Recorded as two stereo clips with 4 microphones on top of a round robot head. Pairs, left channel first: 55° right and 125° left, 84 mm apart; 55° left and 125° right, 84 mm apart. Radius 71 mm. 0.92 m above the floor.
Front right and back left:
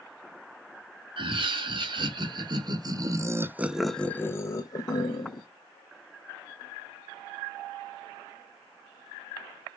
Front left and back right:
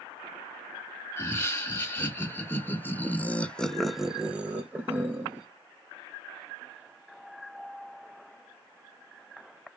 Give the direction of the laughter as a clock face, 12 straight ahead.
8 o'clock.